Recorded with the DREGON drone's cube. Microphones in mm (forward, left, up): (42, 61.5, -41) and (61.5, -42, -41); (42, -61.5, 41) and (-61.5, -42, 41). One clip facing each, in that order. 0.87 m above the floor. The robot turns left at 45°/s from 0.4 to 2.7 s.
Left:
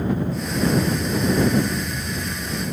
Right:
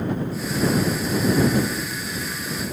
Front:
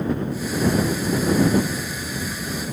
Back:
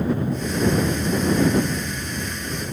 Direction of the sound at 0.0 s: 140° left.